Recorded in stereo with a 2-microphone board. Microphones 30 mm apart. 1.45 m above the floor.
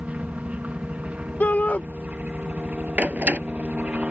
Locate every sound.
0.0 s a helicopter: 55° right (ahead or behind)
1.4 s a shout: 70° left (ahead or behind)
3.0 s a door slam: 60° right (ahead or behind)